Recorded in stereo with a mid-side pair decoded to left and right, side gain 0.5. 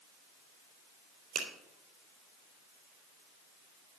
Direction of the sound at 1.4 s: 70° right.